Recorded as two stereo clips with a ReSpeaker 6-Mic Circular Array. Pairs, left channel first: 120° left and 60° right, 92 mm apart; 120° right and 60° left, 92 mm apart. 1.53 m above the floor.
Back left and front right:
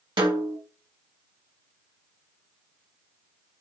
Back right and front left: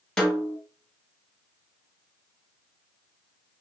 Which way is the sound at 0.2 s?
40° right.